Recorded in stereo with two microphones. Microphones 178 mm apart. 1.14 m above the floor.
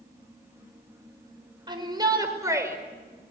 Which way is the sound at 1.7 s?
25° right (ahead or behind).